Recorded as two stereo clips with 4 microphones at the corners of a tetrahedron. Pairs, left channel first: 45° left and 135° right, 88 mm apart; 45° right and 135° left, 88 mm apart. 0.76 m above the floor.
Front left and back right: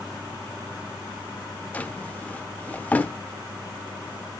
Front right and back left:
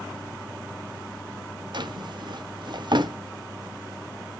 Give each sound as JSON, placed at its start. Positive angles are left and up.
{"t": 1.7, "sound": "a drawer", "azimuth_deg": 115, "distance_m": 0.6}